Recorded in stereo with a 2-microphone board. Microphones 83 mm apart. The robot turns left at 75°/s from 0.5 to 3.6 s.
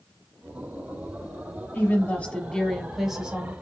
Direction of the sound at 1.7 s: 20° left (ahead or behind).